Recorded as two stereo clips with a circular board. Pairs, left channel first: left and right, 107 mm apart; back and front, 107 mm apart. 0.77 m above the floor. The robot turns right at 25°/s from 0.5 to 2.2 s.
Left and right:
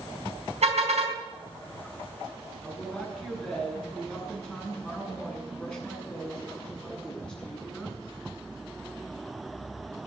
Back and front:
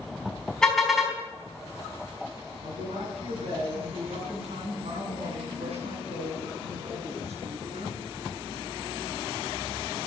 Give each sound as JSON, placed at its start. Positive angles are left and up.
{"t": 0.6, "sound": "a car horn", "azimuth_deg": -95, "distance_m": 4.0}
{"t": 2.6, "sound": "a woman speaking", "azimuth_deg": 10, "distance_m": 7.5}